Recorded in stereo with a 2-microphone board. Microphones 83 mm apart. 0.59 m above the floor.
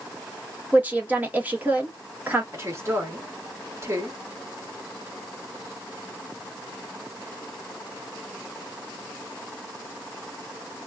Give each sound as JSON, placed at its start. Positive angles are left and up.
{"t": 0.7, "sound": "a woman speaking", "side_deg": -20, "distance_m": 1.0}
{"t": 2.5, "sound": "a woman speaking", "side_deg": -35, "distance_m": 1.4}